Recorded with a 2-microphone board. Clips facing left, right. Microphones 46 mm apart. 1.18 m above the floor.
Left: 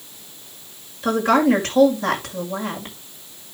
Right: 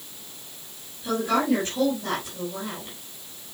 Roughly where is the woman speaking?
Left.